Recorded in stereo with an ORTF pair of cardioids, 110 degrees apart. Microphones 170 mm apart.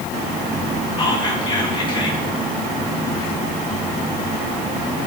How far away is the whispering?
About 2.5 m.